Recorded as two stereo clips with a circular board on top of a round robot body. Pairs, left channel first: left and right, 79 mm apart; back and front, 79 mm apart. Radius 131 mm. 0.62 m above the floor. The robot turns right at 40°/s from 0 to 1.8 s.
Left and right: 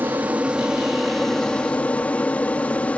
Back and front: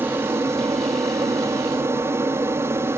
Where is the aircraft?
45° right; by 3.0 s 25° left.